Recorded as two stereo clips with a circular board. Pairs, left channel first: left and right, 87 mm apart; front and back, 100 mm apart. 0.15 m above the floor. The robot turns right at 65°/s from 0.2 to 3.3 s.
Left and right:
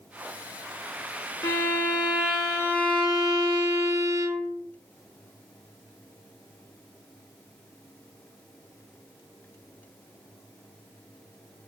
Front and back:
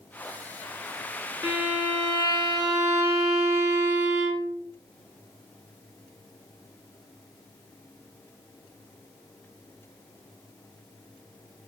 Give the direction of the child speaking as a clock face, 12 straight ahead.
No child speaking in this recording.